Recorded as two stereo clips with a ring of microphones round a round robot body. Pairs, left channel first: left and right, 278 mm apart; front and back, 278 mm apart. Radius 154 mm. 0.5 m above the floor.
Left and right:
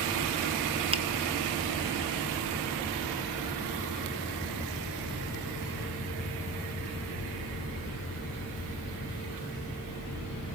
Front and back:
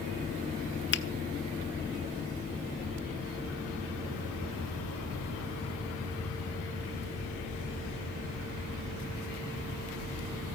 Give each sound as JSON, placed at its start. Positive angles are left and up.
{"t": 0.9, "sound": "a finger snap", "azimuth_deg": -25, "distance_m": 1.3}